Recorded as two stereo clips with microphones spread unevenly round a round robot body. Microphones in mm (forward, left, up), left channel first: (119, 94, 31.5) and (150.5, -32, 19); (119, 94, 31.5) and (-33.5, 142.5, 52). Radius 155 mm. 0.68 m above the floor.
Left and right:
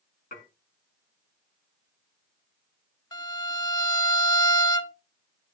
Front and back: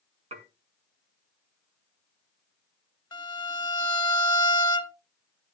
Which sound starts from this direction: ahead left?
A violin, at 3.1 s.